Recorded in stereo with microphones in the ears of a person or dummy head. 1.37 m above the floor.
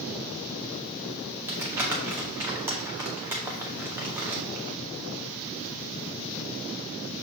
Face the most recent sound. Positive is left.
turn(degrees=-15)  # may be behind; listen again after turning